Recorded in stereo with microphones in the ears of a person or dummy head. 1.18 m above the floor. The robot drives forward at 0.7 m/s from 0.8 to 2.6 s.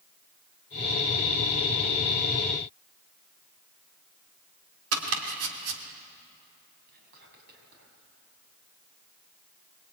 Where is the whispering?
55° right (ahead or behind), 7 m.